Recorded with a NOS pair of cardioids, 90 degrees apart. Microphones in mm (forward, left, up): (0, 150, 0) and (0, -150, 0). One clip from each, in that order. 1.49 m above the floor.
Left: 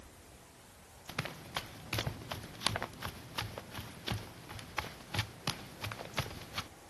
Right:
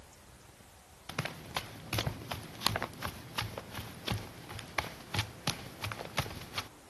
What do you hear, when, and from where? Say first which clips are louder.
1.1 s running footsteps: right 2 dB; 20° right